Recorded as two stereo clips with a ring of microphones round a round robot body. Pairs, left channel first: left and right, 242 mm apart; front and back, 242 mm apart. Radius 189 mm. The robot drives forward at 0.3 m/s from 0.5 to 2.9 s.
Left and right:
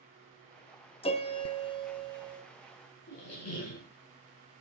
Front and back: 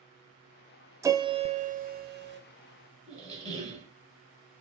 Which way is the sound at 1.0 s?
115° left.